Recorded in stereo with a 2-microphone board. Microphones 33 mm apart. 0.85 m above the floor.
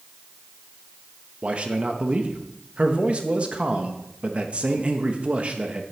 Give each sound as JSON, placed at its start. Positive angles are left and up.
{"t": 1.4, "sound": "a man speaking", "side_deg": -40, "distance_m": 1.2}